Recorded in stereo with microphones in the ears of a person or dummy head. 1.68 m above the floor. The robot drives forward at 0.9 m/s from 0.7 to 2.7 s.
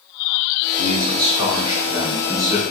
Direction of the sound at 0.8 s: 35° right (ahead or behind).